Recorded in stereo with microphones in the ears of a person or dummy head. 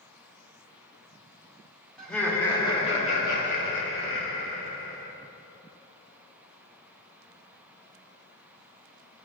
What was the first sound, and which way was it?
Laughter, 5° left (ahead or behind).